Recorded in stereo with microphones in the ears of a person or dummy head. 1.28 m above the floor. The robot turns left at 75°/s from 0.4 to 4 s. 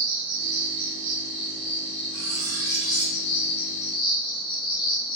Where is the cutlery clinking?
70° right, 0.8 m; by 3.2 s 145° right, 0.8 m.